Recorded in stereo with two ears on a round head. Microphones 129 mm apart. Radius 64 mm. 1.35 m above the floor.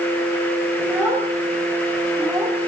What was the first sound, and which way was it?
A child speaking, 10° right (ahead or behind).